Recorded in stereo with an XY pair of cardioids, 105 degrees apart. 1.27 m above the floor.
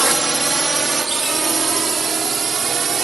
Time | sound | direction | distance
0.0 | a drone | 20° right | ?